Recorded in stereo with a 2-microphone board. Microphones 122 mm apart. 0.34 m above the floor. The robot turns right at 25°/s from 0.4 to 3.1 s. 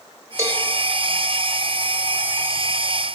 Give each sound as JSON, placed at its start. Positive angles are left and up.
{"t": 0.4, "sound": "a cowbell", "side_deg": -25, "distance_m": 0.9}